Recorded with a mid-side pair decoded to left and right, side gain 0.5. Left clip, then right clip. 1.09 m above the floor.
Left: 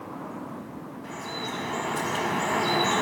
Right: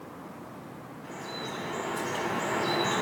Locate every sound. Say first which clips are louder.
1.0 s dripping: left 4 dB; 35° left, 0.8 m